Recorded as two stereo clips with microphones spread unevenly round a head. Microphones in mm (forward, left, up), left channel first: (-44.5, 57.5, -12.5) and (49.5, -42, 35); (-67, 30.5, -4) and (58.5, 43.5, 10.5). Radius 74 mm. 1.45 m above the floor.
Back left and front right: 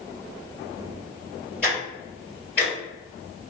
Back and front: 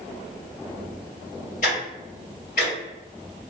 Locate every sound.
1.6 s ticking: 140° right, 1.9 m